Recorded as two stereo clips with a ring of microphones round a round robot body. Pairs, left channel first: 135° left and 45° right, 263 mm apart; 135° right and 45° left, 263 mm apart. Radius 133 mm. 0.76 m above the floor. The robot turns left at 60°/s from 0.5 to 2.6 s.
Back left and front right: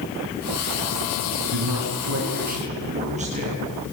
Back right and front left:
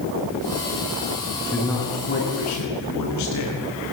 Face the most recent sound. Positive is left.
turn(degrees=-110)